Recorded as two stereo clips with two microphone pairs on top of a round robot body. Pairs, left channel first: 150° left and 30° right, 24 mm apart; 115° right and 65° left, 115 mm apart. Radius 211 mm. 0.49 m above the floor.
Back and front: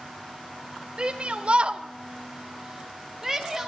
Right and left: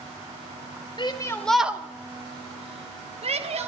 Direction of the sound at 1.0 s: 70° right.